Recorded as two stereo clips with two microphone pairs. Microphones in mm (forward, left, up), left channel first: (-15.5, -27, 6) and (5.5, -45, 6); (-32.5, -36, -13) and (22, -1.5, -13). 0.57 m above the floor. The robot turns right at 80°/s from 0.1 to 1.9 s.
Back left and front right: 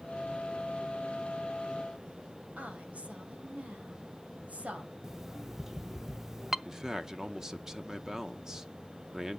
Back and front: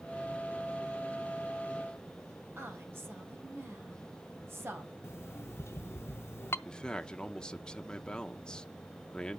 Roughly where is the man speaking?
Right.